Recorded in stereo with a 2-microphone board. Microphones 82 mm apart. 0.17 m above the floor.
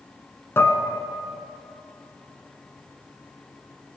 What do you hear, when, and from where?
0.6 s dishes clattering: 30° left (ahead or behind), 1.3 m